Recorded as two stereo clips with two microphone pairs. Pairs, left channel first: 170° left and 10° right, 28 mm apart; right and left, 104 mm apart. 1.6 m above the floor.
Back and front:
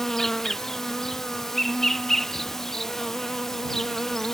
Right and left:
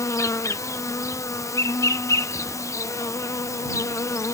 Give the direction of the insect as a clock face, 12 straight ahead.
4 o'clock.